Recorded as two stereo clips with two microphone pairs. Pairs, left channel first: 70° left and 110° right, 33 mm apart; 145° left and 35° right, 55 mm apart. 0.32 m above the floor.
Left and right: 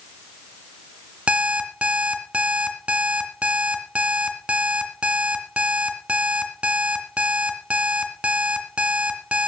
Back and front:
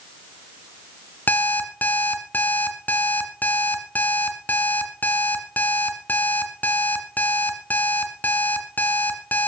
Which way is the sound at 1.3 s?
160° right.